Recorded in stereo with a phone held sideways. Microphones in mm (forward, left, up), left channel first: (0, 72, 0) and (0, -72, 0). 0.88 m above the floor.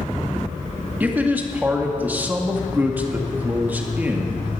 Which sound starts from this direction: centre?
A man speaking, at 1.0 s.